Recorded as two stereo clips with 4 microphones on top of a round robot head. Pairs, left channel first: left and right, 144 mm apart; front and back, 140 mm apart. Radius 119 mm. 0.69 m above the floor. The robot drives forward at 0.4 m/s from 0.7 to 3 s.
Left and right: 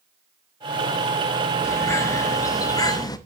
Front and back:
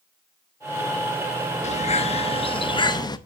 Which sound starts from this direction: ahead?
A bird, at 1.6 s.